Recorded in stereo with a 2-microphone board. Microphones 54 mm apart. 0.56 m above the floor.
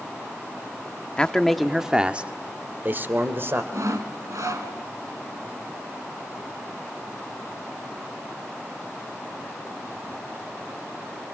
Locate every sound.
1.2 s a man speaking: 20° left (ahead or behind), 0.9 m; by 3.6 s 45° right (ahead or behind), 2 m
3.7 s sawing: 80° right, 2 m